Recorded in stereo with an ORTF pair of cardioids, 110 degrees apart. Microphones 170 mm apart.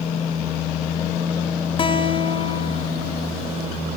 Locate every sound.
1.8 s a guitar: 30° left, 2.0 m